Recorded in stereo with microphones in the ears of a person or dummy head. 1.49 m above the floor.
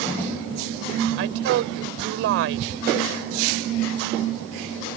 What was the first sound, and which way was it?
A woman speaking, 75° right (ahead or behind).